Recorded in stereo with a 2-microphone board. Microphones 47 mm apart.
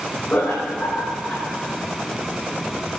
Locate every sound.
0.3 s laughter: 25° left (ahead or behind), 5.5 m